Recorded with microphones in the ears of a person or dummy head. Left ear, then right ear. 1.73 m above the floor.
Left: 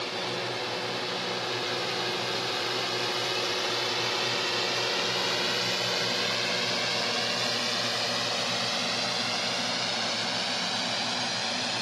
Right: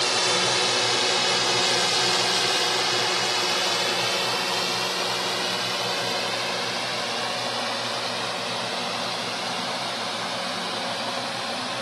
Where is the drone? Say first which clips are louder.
Right 9 dB; 50° right (ahead or behind); by 11.8 s 35° left (ahead or behind).